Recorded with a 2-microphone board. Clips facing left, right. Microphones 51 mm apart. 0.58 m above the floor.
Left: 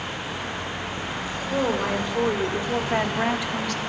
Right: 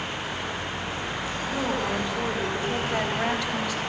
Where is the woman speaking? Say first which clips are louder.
Left 4 dB; 35° left (ahead or behind), 3 m; by 3.8 s 10° right (ahead or behind), 1.2 m.